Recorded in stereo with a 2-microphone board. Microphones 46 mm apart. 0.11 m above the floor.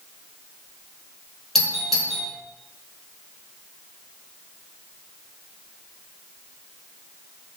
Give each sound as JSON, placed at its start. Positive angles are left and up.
{"t": 1.6, "sound": "a doorbell", "side_deg": 5, "distance_m": 4.0}